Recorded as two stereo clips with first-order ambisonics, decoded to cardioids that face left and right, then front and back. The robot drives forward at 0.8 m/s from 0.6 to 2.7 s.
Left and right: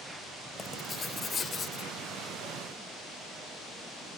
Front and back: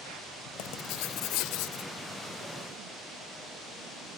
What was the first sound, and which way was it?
Writing, 20° left.